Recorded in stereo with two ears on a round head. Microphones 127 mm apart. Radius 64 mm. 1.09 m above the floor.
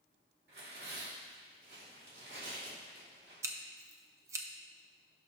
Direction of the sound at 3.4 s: 20° right (ahead or behind).